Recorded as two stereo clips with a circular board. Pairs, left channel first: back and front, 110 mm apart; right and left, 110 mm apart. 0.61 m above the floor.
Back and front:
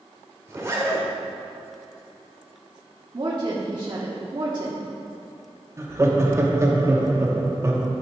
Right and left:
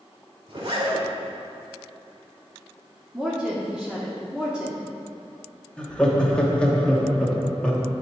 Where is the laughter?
20° right, 1.0 m.